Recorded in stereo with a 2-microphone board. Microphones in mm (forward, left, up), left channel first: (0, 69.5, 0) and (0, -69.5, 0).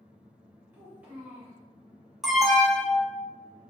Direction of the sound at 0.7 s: 15° right (ahead or behind).